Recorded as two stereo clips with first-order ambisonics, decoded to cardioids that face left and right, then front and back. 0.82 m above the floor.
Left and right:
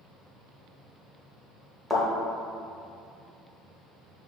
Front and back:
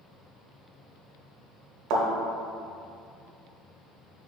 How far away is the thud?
About 0.8 m.